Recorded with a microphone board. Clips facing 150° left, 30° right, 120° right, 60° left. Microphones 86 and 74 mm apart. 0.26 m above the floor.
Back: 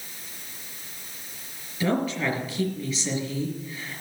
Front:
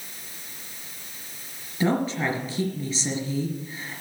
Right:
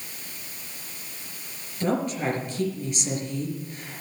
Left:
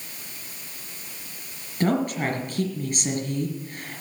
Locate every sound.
1.8 s a woman speaking: 25° left, 4.5 m